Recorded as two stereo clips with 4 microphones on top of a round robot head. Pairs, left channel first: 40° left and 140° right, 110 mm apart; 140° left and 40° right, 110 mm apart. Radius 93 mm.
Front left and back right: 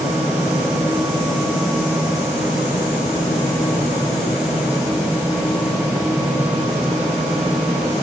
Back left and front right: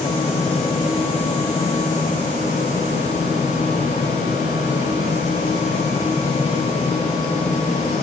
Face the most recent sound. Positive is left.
No sound to turn to.